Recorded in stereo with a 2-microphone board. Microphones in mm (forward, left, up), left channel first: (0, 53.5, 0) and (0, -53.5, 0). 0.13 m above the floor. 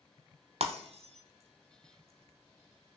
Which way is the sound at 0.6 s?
70° right (ahead or behind).